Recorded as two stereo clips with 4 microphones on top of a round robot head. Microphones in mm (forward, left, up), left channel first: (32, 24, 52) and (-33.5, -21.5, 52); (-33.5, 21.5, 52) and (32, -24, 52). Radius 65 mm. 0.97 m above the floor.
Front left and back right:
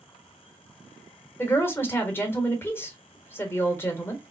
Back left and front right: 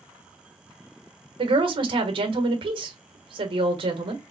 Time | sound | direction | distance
1.4 | a woman speaking | 30° right | 1.3 m